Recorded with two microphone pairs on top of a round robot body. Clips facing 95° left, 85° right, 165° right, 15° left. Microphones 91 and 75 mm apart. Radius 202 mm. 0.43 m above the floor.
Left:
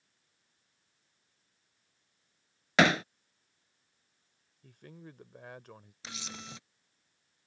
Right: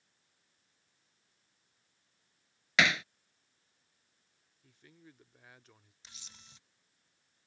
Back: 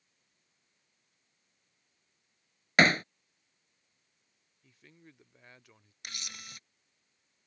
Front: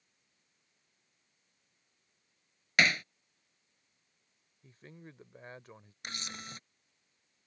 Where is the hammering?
145° left.